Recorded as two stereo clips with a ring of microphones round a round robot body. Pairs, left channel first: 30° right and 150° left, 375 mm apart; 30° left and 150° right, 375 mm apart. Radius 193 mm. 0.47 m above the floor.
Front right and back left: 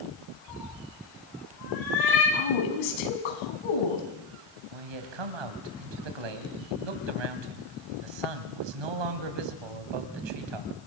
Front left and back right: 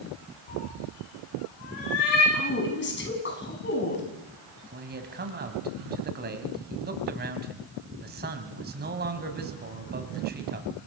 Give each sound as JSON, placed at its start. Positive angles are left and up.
{"t": 0.5, "sound": "a cat meowing", "azimuth_deg": 10, "distance_m": 9.0}
{"t": 2.3, "sound": "a woman speaking", "azimuth_deg": -35, "distance_m": 5.5}
{"t": 4.7, "sound": "a man speaking", "azimuth_deg": 145, "distance_m": 3.0}